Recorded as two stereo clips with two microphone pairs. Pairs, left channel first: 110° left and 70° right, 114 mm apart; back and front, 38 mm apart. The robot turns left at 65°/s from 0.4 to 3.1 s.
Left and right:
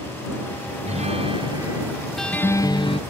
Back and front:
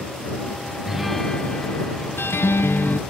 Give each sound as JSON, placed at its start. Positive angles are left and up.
{"t": 0.8, "sound": "a guitar", "azimuth_deg": -75}